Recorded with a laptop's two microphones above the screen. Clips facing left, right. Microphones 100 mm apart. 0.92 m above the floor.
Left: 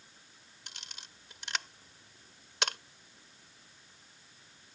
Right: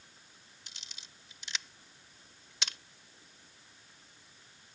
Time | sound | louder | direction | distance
0.7 | a camera shutter | left 5 dB | 60° left (ahead or behind) | ?